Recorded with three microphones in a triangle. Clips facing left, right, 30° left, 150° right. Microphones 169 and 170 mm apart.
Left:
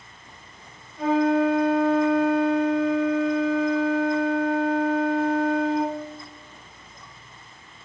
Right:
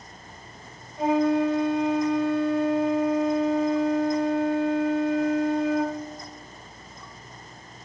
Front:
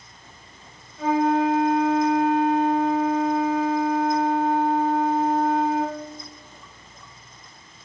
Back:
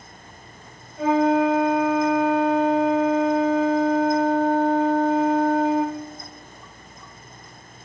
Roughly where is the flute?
Behind right.